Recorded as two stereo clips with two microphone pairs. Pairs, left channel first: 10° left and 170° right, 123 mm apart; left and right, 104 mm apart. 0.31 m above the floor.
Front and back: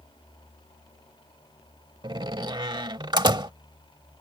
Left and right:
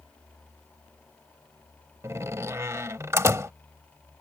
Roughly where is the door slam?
Behind right.